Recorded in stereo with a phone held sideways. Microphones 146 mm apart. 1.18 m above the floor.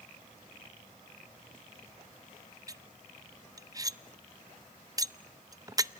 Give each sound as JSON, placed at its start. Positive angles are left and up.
{"t": 2.7, "sound": "cutlery clinking", "side_deg": -25, "distance_m": 0.6}